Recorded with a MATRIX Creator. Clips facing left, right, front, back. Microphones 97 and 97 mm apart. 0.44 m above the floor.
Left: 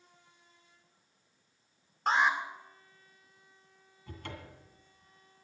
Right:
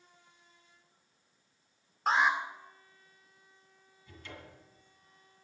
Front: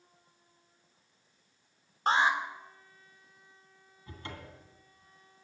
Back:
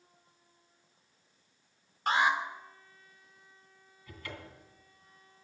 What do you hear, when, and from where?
2.1 s an alarm: 5° right, 2 m
4.1 s a cupboard door: 60° left, 2.5 m